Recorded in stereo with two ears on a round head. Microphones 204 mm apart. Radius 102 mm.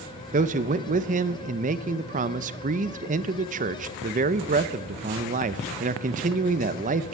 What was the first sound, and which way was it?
A man speaking, 35° right (ahead or behind).